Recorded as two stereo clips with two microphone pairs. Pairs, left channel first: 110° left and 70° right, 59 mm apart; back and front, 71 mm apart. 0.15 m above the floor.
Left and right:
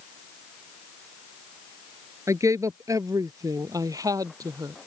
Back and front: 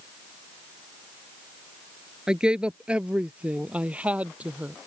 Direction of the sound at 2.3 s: 75° right.